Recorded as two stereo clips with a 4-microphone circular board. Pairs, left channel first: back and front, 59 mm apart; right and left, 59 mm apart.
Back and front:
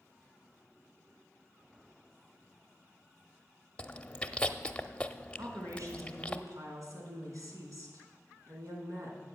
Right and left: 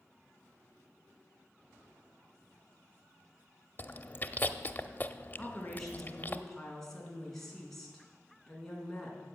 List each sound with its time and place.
3.8 s chewing: 120° right, 0.6 m
5.4 s a woman speaking: 5° right, 3.5 m